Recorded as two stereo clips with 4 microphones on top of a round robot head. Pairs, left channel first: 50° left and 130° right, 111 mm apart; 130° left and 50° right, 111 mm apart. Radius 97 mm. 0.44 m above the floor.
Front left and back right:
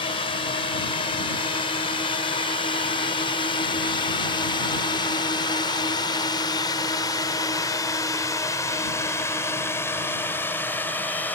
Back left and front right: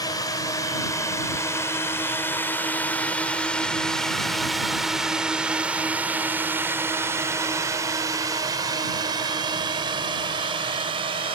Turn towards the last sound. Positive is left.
turn(degrees=-20)